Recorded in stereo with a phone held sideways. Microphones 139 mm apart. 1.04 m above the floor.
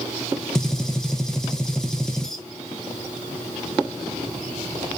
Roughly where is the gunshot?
Centre.